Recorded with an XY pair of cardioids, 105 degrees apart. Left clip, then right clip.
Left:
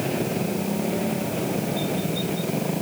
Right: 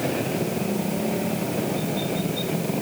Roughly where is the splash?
No splash in this recording.